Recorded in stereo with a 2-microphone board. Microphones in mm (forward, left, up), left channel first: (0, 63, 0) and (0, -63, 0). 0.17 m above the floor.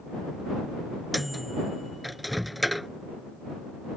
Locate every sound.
1.1 s a microwave: centre (ahead or behind)